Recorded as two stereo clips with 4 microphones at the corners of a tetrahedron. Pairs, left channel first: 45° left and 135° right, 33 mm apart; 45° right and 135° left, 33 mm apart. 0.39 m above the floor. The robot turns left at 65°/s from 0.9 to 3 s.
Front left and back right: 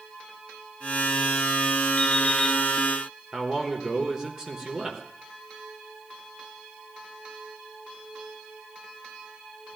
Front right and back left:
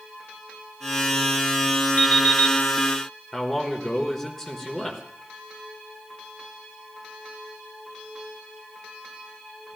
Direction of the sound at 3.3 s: 115° right.